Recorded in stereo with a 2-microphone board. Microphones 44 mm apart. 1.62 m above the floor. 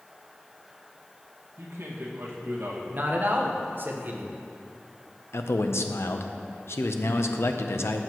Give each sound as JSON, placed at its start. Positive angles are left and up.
{"t": 1.6, "sound": "a man speaking", "side_deg": -85, "distance_m": 1.8}
{"t": 2.9, "sound": "a man speaking", "side_deg": -50, "distance_m": 1.1}
{"t": 5.3, "sound": "a man speaking", "side_deg": 75, "distance_m": 0.7}